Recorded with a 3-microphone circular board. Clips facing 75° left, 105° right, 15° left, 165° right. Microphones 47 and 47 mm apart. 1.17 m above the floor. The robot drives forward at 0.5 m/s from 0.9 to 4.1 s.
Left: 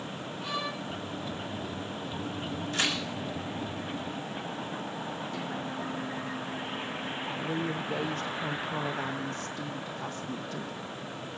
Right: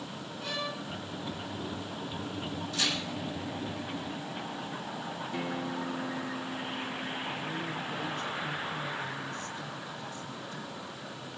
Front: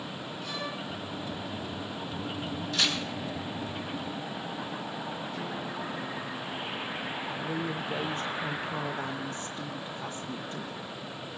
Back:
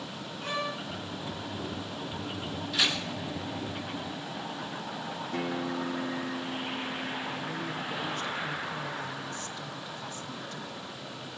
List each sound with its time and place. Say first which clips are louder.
0.4 s a violin: left 1 dB, back 5 dB; 145° left, 5 m
2.7 s tearing paper: left 2 dB, back 1 dB; 115° left, 3 m
5.3 s a guitar: right 1 dB, back 3 dB; 170° right, 2.5 m
7.4 s a woman speaking: left 3 dB, front 2 dB; 70° left, 0.8 m